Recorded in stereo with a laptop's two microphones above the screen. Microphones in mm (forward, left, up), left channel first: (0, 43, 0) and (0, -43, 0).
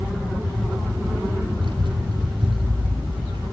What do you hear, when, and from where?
1.6 s a child speaking: 65° right (ahead or behind), 4.5 m